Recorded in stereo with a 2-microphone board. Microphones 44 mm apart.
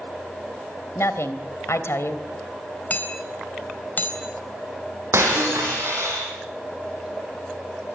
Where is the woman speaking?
80° left, 3 m.